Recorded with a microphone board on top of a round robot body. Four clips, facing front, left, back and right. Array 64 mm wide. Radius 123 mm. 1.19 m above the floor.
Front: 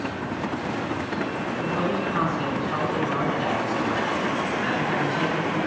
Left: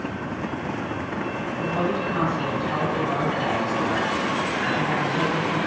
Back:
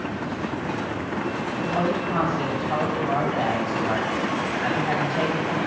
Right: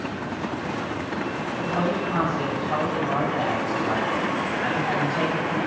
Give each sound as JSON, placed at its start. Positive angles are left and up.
{"t": 1.6, "sound": "a woman speaking", "azimuth_deg": -145, "distance_m": 6.5}